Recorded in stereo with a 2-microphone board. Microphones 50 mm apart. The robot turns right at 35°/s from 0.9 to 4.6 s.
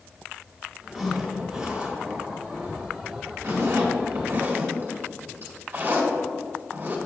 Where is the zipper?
Centre (ahead or behind), 2 m; by 7.0 s 45° right (ahead or behind), 2 m.